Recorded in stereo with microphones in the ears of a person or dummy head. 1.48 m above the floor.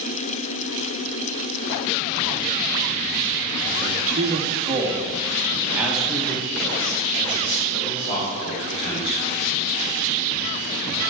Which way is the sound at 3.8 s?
50° right (ahead or behind).